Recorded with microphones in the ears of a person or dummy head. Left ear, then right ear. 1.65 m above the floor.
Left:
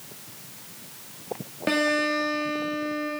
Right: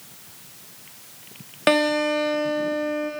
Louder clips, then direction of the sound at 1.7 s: Right 4 dB; 25° right (ahead or behind).